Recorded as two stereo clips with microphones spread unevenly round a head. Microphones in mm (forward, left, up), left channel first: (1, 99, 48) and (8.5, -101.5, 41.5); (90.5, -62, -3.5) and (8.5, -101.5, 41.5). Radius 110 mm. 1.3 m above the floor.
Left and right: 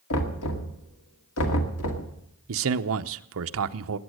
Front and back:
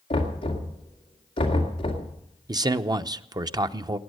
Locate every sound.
0.1 s knocking: 75° left, 2 m
2.5 s a man speaking: 110° right, 0.7 m